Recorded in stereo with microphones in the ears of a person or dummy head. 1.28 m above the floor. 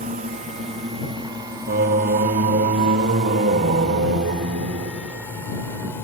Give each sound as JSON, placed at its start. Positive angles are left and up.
{"t": 0.0, "sound": "a drone", "side_deg": -45}
{"t": 1.7, "sound": "singing", "side_deg": -45}